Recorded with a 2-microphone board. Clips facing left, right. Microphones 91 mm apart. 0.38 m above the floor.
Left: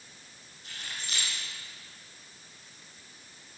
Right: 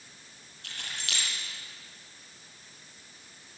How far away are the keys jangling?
About 7 m.